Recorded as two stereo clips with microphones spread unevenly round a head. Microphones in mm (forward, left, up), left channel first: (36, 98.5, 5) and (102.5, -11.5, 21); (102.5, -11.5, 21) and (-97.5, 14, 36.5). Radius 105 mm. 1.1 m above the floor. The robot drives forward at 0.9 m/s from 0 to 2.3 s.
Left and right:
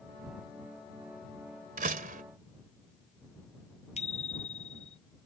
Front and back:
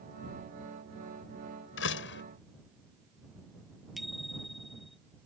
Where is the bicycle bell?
85° left.